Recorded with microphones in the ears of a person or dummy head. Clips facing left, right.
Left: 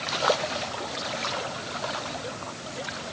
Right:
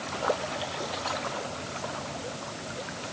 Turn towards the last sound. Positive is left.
No sound to turn to.